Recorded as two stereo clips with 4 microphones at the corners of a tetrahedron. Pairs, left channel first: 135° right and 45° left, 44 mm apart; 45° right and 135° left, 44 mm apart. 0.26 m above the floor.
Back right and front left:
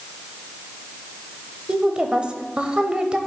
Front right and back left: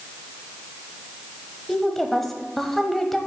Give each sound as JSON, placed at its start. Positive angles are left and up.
{"t": 1.7, "sound": "a woman speaking", "azimuth_deg": 30, "distance_m": 1.0}